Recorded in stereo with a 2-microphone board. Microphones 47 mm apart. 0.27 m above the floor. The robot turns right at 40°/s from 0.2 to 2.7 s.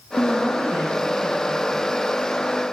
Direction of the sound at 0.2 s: 75° left.